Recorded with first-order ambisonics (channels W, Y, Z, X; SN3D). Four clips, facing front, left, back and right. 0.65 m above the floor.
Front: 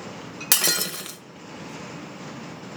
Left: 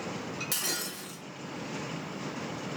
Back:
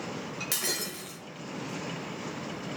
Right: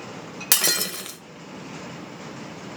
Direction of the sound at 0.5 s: 45° right.